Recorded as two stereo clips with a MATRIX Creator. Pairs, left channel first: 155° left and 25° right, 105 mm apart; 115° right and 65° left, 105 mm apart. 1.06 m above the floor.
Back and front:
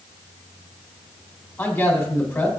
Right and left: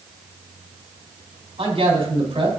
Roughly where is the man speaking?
Left.